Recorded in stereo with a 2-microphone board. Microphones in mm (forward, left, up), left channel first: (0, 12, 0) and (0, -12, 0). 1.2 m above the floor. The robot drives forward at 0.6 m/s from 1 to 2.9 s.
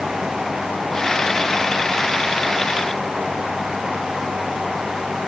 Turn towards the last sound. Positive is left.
No sound to turn to.